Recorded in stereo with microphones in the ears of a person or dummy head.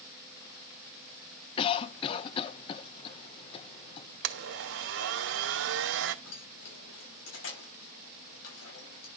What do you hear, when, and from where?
1.6 s a cough: 35° left (ahead or behind), 0.6 m
4.2 s a blender: 65° right (ahead or behind), 0.9 m
6.2 s keys jangling: 75° left (ahead or behind), 6.5 m